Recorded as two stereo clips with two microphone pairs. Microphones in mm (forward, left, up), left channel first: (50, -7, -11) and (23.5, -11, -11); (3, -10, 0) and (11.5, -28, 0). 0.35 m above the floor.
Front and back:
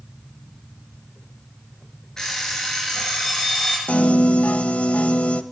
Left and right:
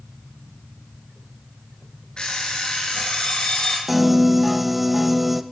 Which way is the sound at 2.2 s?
80° left.